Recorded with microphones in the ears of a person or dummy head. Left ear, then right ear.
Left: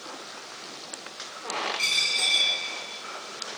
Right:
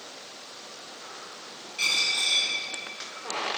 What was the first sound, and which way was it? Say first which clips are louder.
A dropped coin: right 1 dB; 10° right (ahead or behind).